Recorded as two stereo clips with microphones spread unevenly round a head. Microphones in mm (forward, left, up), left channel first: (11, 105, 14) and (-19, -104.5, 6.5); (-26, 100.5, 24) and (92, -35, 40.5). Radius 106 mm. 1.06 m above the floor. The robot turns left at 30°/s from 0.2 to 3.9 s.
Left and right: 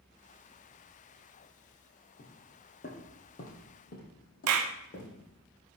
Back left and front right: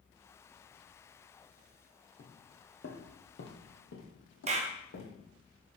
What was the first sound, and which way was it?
Footsteps, 95° left.